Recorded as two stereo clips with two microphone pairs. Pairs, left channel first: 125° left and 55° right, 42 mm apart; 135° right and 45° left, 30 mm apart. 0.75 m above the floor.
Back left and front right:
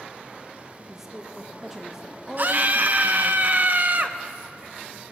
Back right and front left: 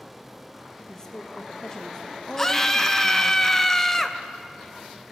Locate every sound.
0.9 s a woman speaking: 115° right, 0.7 m
2.4 s a scream: 60° right, 0.5 m